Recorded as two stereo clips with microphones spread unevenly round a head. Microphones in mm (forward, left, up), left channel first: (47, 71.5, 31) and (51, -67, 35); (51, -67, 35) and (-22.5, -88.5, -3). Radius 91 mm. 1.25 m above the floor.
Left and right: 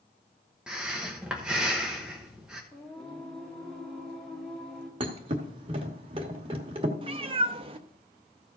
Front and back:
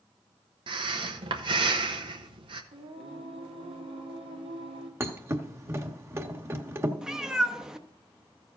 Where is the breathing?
175° right, 0.9 m.